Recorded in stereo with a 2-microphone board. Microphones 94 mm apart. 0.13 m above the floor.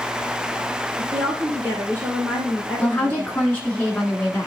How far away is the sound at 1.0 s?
About 2.5 m.